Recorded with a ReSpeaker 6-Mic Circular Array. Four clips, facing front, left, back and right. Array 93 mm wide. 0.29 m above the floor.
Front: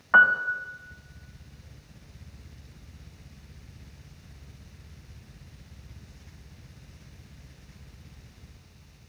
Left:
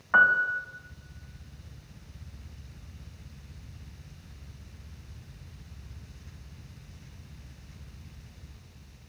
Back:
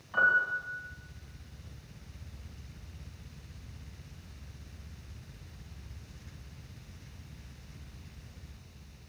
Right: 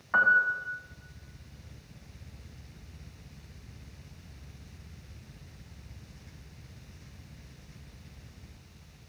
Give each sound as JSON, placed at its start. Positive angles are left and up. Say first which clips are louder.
{"t": 0.1, "sound": "a piano", "louder": "left 2 dB, front 7 dB", "azimuth_deg": 15, "distance_m": 2.5}